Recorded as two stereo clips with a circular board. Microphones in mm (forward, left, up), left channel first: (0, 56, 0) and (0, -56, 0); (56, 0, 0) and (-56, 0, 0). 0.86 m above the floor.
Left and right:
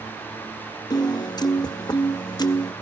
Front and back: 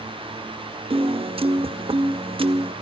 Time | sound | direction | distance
0.9 | a piano | 145° left | 0.5 m